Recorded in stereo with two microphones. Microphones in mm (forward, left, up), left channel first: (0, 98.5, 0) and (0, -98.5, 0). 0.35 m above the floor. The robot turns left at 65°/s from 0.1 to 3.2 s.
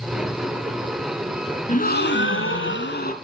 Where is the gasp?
140° left, 1.0 m; by 3.1 s 45° left, 1.0 m.